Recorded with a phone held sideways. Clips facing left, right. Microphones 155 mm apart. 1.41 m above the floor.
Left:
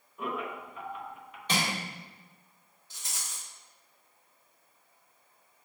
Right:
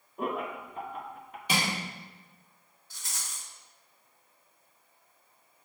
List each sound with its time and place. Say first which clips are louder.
0.2 s laughter: right 3 dB; 45° right (ahead or behind), 0.9 m
1.5 s crushing: right 1 dB; 10° right (ahead or behind), 2.5 m
2.9 s a rattle: even; 20° left (ahead or behind), 1.2 m